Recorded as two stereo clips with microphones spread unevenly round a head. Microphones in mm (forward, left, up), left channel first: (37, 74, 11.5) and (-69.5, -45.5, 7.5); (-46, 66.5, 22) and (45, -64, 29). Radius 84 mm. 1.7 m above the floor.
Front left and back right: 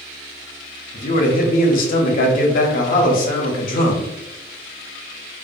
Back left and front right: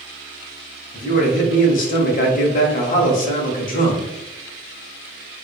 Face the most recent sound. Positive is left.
turn(degrees=85)